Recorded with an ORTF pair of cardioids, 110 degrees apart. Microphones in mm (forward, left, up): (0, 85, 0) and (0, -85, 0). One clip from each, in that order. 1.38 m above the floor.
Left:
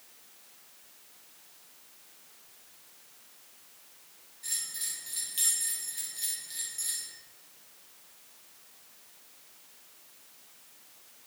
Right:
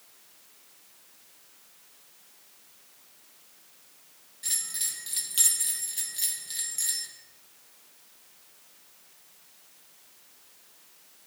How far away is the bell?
About 1.5 m.